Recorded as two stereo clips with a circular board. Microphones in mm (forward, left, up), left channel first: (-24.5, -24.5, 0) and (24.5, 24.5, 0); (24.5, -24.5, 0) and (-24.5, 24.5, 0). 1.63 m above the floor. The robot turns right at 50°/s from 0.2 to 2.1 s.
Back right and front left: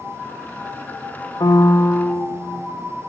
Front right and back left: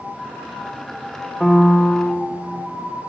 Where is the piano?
130° right, 0.7 m; by 2.3 s 95° right, 0.7 m.